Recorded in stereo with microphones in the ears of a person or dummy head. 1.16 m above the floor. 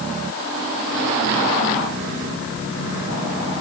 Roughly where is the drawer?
I don't hear a drawer.